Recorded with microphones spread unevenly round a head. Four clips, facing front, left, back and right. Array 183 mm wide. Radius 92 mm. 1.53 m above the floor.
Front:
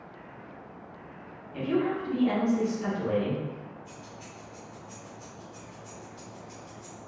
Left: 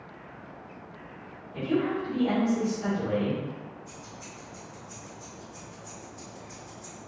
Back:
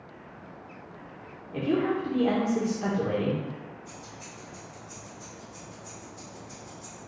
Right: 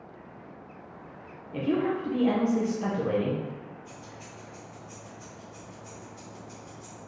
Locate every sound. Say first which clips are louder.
1.5 s a woman speaking: right 1 dB, back 1 dB; 145° right, 1.9 m
3.9 s keys jangling: even, back 1 dB; 100° right, 1.8 m